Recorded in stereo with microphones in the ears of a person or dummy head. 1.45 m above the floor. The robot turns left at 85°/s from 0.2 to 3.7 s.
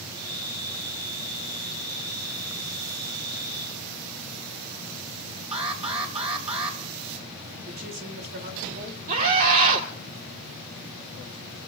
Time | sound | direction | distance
5.5 | an alarm | 30° right (ahead or behind) | 5 m
7.7 | a woman speaking | 55° right (ahead or behind) | 3 m
9.1 | a scream | 45° right (ahead or behind) | 1.8 m